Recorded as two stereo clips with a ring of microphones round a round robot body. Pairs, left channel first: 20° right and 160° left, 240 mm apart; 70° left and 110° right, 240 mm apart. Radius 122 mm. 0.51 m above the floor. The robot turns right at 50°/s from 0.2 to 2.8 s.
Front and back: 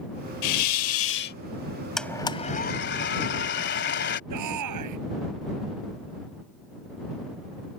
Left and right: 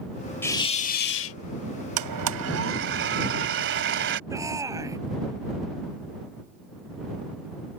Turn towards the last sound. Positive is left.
turn(degrees=170)